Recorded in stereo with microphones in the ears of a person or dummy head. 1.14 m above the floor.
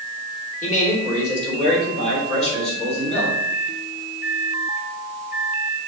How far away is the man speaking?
About 3 m.